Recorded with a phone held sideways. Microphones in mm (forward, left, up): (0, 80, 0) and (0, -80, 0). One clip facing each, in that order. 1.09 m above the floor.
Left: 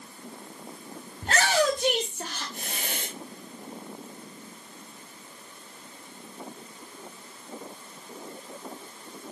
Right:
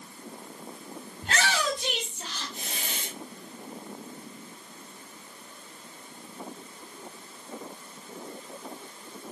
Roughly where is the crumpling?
I don't hear crumpling.